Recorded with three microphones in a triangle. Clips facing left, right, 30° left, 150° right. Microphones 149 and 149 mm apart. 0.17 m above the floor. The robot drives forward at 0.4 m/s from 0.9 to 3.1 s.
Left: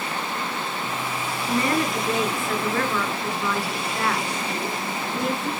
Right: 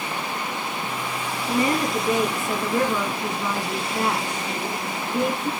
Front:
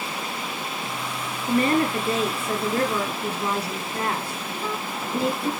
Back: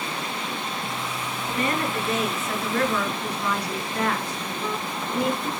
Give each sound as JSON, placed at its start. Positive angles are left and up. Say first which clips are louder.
{"t": 1.5, "sound": "a woman speaking", "louder": "right 1 dB, front 6 dB", "azimuth_deg": -20, "distance_m": 3.0}